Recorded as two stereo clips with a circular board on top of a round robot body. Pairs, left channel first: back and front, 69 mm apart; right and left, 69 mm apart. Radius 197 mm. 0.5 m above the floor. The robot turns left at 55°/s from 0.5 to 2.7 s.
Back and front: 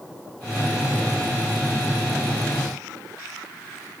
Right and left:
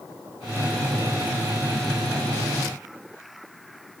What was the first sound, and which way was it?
Only background noise.